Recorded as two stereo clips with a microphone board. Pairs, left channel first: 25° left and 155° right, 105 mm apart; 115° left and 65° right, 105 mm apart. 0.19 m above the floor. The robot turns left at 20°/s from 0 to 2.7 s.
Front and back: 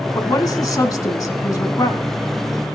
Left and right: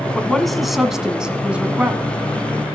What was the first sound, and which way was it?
A woman speaking, 30° left.